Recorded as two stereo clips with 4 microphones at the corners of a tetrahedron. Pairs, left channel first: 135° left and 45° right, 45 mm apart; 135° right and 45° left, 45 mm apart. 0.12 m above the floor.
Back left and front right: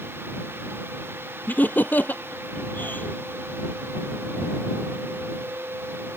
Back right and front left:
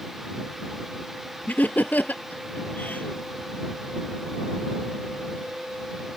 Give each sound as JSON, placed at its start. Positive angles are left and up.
{"t": 1.5, "sound": "laughter", "azimuth_deg": 175}